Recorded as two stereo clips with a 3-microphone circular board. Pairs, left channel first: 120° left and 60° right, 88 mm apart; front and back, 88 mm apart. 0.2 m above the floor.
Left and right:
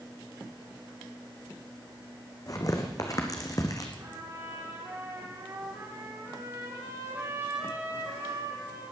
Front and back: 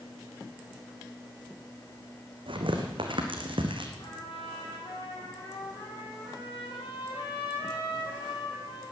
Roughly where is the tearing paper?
Behind.